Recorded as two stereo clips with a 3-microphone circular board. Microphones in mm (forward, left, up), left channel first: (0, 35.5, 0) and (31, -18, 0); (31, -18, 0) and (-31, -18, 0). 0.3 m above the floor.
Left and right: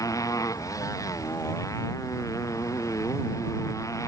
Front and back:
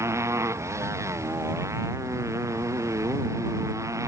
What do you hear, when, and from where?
0.0 s a motorcycle: 140° left; by 4.1 s 150° left